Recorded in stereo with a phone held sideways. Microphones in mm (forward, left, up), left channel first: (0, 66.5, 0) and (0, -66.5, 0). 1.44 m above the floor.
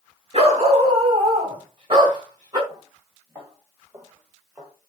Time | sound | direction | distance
0.3 | a dog barking | 50° right (ahead or behind) | 4 m
2.7 | footsteps | 25° right (ahead or behind) | 6.5 m